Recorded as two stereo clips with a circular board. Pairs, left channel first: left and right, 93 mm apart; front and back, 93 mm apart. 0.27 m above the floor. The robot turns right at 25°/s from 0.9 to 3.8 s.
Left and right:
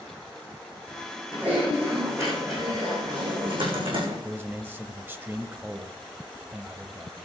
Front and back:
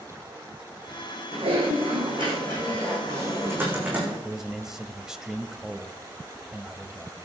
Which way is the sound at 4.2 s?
105° right.